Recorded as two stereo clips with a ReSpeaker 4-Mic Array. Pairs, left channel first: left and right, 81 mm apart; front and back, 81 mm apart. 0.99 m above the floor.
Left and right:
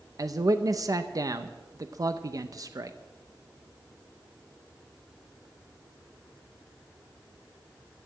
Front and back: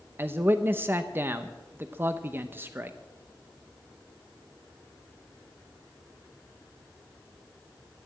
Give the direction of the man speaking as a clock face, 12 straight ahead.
4 o'clock.